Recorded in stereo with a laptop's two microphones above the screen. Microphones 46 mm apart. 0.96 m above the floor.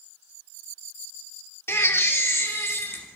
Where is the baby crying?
65° left (ahead or behind), 0.7 m.